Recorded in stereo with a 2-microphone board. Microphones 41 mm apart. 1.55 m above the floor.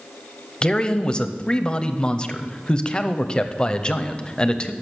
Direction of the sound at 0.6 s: 25° left (ahead or behind).